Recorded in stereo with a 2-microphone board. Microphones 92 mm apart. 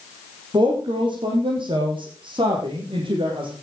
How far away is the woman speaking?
About 4.5 m.